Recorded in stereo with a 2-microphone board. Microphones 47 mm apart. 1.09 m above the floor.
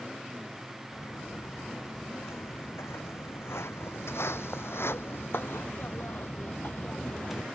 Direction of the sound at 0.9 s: 80° left.